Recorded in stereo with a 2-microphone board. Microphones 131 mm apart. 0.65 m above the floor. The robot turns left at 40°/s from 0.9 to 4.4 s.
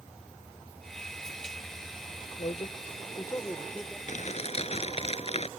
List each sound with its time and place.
2.4 s a man speaking: 65° left; by 4.0 s straight ahead
4.1 s crumpling: 60° left (ahead or behind); by 5.5 s 50° left (ahead or behind)